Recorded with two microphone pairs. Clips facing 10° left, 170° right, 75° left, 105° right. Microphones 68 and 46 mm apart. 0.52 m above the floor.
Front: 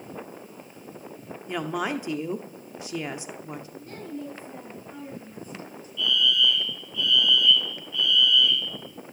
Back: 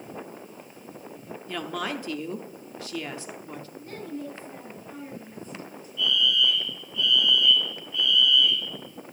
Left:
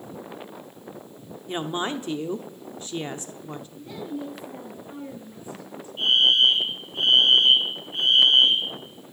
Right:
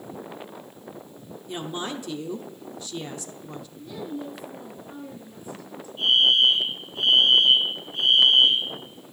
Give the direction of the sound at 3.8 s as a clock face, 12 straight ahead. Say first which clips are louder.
Back 3 dB, even; 8 o'clock.